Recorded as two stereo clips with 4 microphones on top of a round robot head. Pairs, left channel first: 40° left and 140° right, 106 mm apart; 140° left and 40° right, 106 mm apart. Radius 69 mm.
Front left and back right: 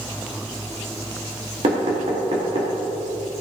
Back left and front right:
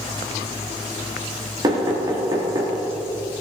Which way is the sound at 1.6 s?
95° right.